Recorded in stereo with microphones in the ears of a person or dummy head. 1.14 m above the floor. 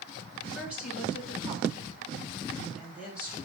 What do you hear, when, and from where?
0.6 s a woman speaking: 10° right (ahead or behind), 3.5 m